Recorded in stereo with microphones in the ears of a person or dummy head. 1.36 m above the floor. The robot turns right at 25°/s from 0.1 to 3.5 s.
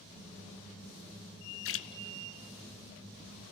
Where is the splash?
60° left (ahead or behind), 0.8 m.